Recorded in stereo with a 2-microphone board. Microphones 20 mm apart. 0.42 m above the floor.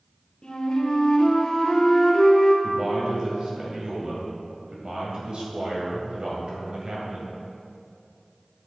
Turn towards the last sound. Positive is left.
turn(degrees=-50)  # may be behind; listen again after turning